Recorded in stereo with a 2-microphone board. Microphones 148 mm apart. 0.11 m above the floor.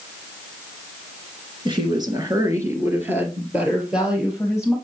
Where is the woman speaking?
30° right (ahead or behind), 1.3 m; by 4.8 s centre (ahead or behind), 2.5 m.